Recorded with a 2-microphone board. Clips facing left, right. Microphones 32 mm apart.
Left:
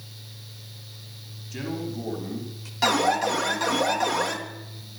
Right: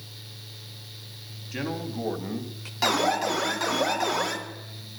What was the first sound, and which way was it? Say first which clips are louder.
A man speaking: even; 35° right (ahead or behind).